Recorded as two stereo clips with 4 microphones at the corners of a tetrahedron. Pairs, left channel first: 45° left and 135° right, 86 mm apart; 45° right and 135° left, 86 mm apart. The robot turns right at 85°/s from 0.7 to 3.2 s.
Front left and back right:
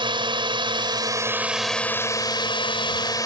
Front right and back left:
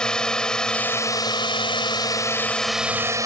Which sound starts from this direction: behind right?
A drone, at 0.0 s.